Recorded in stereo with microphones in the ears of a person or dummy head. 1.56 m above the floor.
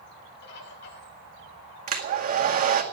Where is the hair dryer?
40° right (ahead or behind), 1.8 m.